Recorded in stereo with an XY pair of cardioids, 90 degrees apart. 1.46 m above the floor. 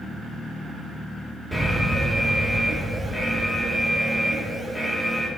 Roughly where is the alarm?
Ahead.